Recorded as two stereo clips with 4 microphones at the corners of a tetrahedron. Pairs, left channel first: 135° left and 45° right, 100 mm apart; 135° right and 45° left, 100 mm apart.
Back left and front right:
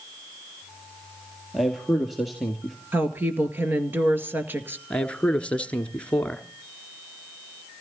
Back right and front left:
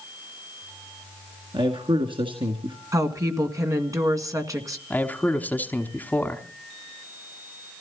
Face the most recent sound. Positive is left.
turn(degrees=-170)